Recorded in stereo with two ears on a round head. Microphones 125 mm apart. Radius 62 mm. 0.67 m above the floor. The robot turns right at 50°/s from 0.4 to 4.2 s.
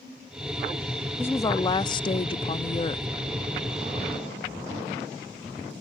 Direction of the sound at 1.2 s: 25° left.